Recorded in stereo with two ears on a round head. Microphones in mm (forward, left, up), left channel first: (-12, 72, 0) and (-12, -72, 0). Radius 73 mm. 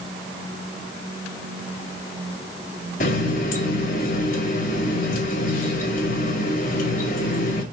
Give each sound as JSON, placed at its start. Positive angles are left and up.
{"t": 3.0, "sound": "a running tap", "side_deg": 55, "distance_m": 2.5}